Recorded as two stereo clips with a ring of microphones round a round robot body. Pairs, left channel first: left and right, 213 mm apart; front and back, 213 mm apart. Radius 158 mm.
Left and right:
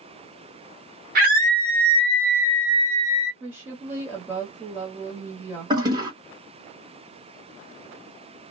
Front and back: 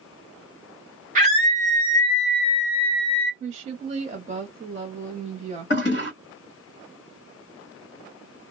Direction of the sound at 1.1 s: 130° right.